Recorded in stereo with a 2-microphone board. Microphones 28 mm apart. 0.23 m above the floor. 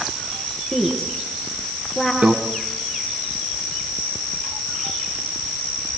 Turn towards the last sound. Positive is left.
turn(degrees=-50)  # may be behind; listen again after turning